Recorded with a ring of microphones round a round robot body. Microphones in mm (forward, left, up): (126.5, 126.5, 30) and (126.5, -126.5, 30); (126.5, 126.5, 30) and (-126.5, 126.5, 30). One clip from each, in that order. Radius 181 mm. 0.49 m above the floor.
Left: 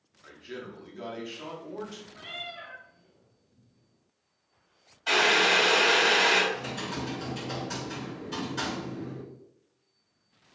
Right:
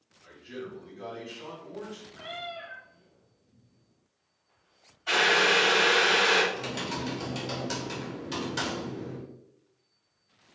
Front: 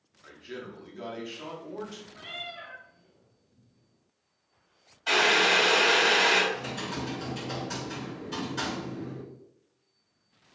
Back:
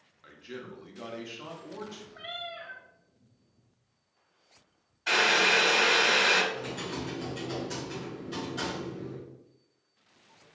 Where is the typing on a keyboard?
85° right, 1.1 m.